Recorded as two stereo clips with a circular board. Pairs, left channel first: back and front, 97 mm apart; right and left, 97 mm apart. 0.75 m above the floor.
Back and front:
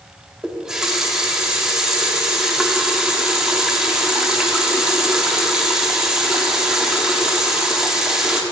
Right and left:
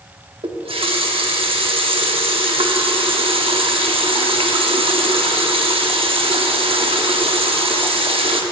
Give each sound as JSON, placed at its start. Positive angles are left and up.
{"t": 0.4, "sound": "a running tap", "azimuth_deg": 85, "distance_m": 1.0}